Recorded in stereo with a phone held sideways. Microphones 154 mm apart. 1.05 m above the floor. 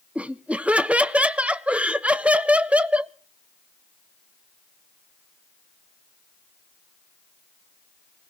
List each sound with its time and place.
0.1 s laughter: 10° right (ahead or behind), 0.8 m